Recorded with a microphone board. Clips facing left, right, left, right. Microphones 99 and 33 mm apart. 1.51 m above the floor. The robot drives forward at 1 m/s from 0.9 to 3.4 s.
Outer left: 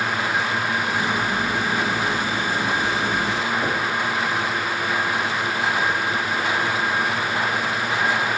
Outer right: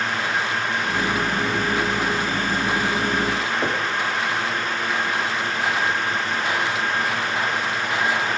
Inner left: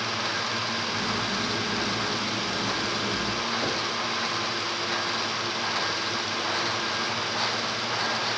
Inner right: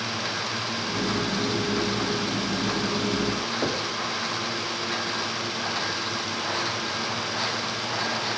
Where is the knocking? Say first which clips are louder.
Even, inner right 1 dB; 25° right (ahead or behind), 2.5 m.